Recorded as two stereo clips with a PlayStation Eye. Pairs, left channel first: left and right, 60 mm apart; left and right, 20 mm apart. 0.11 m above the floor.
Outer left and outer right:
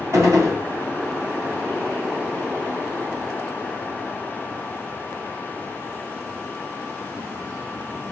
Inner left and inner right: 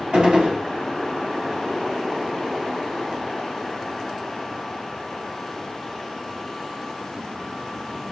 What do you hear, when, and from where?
0.1 s a gunshot: 50° right (ahead or behind), 1.9 m